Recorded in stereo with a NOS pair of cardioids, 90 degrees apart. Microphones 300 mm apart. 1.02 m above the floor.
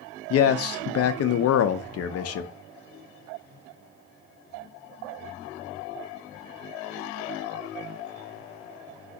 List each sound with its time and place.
0.3 s a man speaking: 55° left, 0.5 m